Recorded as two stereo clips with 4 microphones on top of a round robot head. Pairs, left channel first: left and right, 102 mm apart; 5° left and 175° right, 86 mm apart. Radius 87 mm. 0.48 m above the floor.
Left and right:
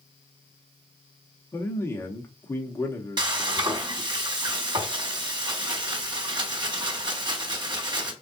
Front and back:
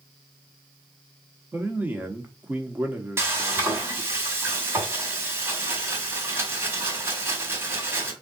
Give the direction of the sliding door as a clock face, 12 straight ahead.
No sliding door in this recording.